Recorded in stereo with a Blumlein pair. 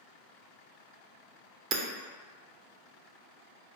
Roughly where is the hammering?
Ahead right.